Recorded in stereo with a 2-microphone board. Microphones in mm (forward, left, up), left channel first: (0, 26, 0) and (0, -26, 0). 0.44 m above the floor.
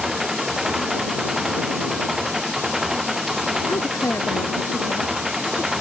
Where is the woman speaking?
80° left.